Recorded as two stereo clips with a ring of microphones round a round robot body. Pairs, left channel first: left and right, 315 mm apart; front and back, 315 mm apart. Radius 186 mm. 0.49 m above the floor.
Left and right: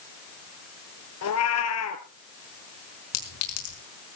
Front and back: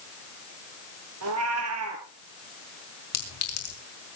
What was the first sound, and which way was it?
A cat meowing, 130° left.